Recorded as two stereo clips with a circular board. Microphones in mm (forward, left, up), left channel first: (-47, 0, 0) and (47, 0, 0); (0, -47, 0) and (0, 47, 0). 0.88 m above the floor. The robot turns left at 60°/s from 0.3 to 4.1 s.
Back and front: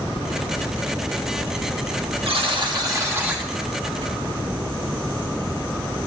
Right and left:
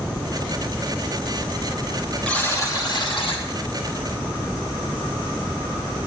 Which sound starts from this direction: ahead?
A buzzer, at 2.2 s.